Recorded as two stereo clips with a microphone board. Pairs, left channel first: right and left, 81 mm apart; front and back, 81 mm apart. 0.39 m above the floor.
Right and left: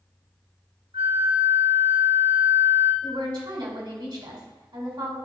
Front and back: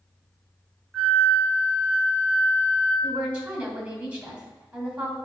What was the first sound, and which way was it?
A flute, 95° left.